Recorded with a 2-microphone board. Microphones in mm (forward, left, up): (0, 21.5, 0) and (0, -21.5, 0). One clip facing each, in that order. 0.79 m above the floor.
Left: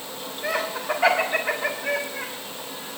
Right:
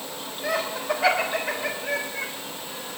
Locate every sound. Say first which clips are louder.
0.4 s laughter: even; 50° left (ahead or behind), 2.5 m; by 2.3 s 45° left (ahead or behind), 1.1 m